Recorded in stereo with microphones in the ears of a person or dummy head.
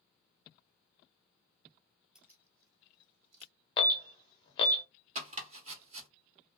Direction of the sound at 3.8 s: 30° left (ahead or behind).